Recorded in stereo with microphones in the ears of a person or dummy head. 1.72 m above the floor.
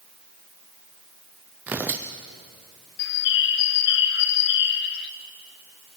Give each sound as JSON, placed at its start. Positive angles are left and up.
{"t": 1.7, "sound": "tearing paper", "side_deg": -10, "distance_m": 0.5}
{"t": 3.0, "sound": "a bird", "side_deg": 55, "distance_m": 1.0}